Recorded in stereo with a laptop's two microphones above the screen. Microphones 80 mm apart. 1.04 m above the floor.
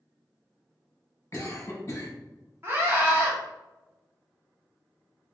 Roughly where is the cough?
Left.